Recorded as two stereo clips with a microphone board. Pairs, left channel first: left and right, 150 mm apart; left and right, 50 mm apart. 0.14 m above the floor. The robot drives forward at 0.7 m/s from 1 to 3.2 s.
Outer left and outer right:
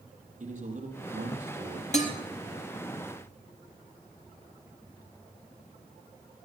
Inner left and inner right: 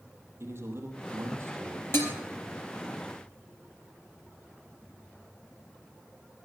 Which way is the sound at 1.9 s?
50° left (ahead or behind).